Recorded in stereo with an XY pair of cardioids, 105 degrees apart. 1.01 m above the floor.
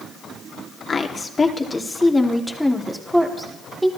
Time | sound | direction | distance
0.9 | a woman speaking | 40° left | 3 m